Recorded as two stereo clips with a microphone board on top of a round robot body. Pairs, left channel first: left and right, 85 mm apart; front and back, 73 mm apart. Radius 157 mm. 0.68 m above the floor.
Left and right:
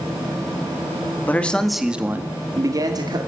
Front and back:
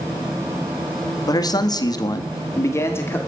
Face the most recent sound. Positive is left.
turn(degrees=-60)